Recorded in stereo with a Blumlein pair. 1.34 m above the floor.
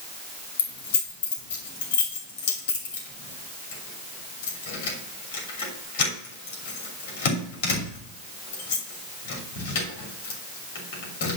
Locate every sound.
0.6 s keys jangling: 50° left, 3 m